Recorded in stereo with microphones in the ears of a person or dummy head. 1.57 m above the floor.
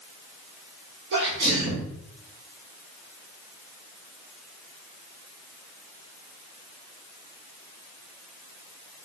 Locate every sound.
1.1 s a sneeze: 60° right (ahead or behind), 0.7 m